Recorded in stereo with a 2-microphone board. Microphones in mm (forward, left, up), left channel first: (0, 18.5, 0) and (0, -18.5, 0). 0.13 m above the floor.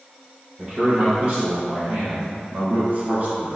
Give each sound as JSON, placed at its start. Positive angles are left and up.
{"t": 0.6, "sound": "a man speaking", "side_deg": -20, "distance_m": 1.6}